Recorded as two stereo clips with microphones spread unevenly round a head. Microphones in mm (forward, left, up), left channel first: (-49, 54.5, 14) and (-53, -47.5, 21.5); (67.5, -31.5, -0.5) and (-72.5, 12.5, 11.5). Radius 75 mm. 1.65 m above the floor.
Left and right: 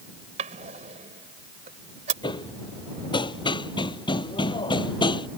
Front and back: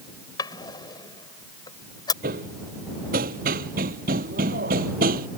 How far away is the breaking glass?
I don't hear breaking glass.